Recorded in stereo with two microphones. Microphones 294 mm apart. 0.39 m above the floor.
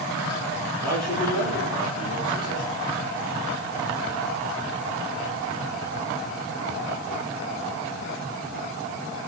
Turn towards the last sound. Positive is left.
turn(degrees=50)  # may be behind; listen again after turning